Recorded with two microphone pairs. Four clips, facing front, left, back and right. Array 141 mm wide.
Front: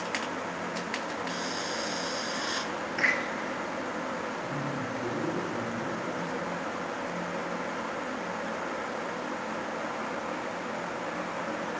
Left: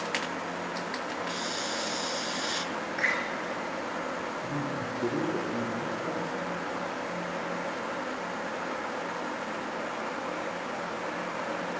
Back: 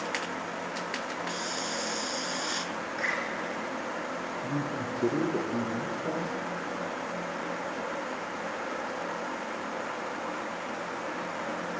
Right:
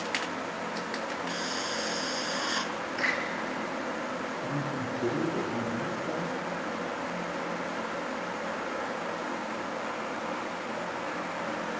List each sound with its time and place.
1.3 s a hiss: 65° right, 1.0 m
3.0 s a door slam: 5° left, 2.5 m
4.4 s a man speaking: 175° left, 3 m